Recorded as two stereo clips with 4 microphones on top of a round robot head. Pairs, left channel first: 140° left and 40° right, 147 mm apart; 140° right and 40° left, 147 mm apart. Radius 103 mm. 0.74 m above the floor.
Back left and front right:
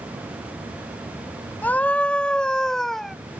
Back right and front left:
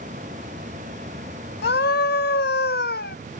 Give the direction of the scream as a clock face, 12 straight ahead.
5 o'clock.